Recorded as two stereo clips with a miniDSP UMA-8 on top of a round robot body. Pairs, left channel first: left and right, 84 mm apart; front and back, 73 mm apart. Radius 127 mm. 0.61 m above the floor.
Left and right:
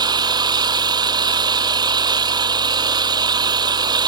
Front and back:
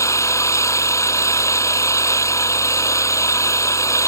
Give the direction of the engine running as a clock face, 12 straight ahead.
2 o'clock.